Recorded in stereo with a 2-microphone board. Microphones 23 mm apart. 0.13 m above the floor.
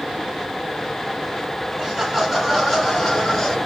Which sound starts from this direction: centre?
Laughter, at 1.8 s.